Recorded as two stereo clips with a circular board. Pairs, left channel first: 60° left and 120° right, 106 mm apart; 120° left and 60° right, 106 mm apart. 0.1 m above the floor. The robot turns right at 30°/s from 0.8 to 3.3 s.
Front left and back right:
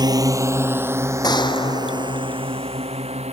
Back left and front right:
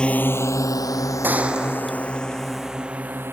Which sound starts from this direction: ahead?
A gunshot, at 1.2 s.